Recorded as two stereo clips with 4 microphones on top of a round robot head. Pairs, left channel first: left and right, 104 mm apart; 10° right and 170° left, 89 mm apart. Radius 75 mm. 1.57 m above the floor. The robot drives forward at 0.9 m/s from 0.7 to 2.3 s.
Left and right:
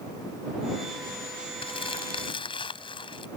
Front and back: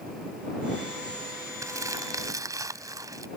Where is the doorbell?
No doorbell in this recording.